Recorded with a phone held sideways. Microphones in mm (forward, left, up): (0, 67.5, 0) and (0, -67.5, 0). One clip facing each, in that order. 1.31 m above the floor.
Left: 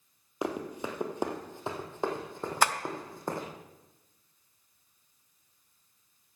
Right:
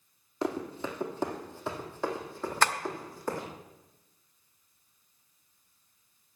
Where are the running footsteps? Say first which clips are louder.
Right 1 dB; 15° left (ahead or behind), 1.8 m; by 3.5 s 20° left (ahead or behind), 3 m.